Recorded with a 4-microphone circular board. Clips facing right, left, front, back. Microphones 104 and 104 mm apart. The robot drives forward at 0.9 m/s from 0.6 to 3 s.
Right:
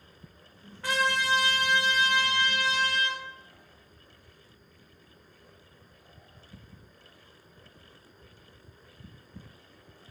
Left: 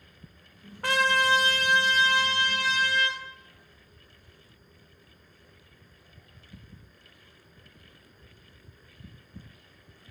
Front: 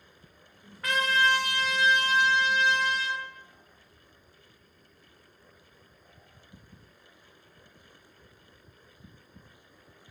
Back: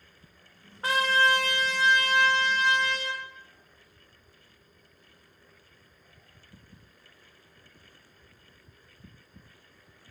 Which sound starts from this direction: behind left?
A trumpet, at 0.8 s.